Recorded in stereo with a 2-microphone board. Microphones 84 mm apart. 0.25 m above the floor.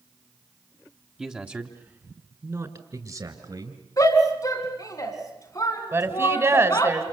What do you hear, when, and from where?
1.2 s a man speaking: 10° right (ahead or behind), 1.2 m; by 3.8 s 60° right (ahead or behind), 3 m
4.0 s a shout: 45° left (ahead or behind), 3 m
5.9 s a woman speaking: 30° right (ahead or behind), 2 m